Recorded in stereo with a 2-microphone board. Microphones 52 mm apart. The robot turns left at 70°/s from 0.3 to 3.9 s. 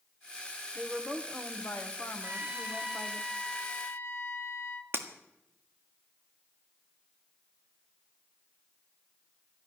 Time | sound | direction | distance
0.8 | a woman speaking | 155° right | 1.3 m
2.2 | a trumpet | 115° right | 1.3 m
4.9 | breaking glass | 50° right (ahead or behind) | 1.5 m